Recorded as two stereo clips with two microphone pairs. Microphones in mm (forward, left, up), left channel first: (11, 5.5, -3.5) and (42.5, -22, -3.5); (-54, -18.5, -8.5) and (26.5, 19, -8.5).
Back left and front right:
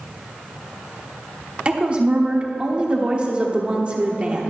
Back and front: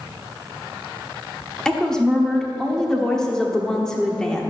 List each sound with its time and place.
1.6 s a woman speaking: 80° right, 1.1 m